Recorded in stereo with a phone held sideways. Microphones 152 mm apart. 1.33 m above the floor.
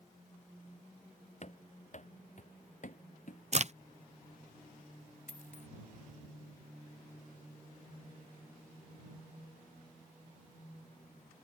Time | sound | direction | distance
1.4 | running footsteps | 50° left (ahead or behind) | ?
3.5 | a crack | 45° right (ahead or behind) | ?
5.3 | a dropped coin | 55° left (ahead or behind) | ?